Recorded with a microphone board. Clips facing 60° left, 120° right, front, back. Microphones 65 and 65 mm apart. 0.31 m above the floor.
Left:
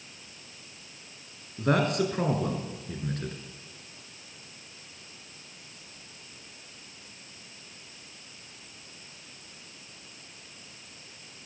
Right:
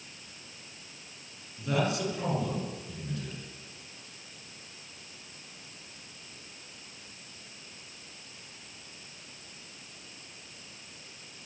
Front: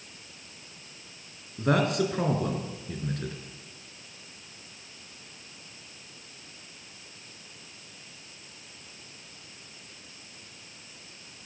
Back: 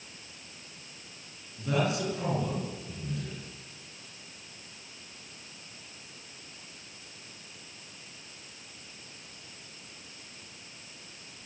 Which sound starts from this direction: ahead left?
A man speaking, at 1.6 s.